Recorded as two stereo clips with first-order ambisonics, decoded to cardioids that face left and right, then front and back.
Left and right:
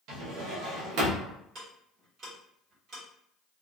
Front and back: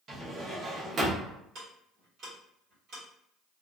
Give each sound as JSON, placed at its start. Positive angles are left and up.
{"t": 0.1, "sound": "a drawer", "azimuth_deg": -115, "distance_m": 0.7}
{"t": 1.6, "sound": "ticking", "azimuth_deg": -135, "distance_m": 1.3}